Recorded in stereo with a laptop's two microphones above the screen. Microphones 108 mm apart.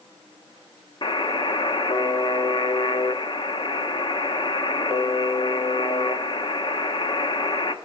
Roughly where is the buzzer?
Left.